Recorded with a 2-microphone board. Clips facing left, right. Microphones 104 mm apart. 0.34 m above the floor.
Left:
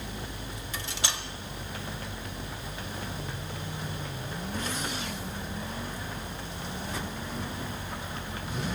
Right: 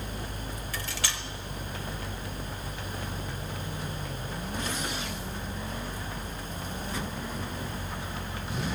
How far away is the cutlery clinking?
About 0.5 m.